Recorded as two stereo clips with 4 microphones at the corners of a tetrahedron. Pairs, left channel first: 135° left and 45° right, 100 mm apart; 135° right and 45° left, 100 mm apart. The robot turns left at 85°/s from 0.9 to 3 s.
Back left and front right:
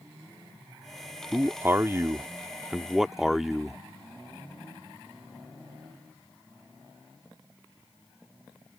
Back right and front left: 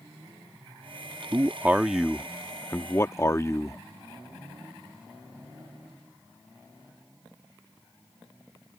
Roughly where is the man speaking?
Ahead.